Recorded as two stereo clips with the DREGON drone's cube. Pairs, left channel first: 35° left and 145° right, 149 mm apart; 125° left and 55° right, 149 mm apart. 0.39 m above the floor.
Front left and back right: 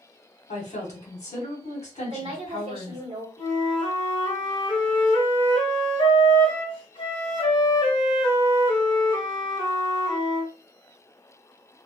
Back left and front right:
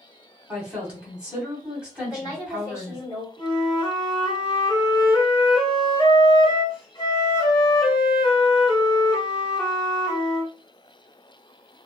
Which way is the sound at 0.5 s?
25° left.